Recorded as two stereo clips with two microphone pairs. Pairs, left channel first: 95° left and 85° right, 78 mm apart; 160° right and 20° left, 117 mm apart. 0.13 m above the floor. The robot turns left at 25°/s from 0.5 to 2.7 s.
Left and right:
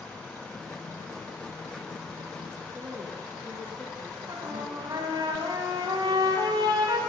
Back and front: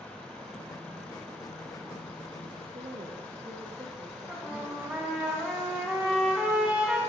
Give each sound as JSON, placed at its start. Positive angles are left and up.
{"t": 2.7, "sound": "a woman speaking", "azimuth_deg": -20, "distance_m": 4.0}
{"t": 4.3, "sound": "a trumpet", "azimuth_deg": -60, "distance_m": 9.0}